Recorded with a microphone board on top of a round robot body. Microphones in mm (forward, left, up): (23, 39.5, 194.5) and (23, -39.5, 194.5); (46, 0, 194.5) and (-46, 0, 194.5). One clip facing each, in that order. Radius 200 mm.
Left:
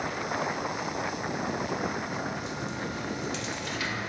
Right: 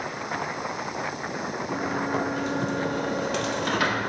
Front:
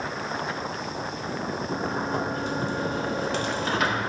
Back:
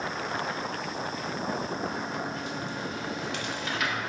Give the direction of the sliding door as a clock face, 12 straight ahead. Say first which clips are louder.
Right 5 dB, front 5 dB; 2 o'clock.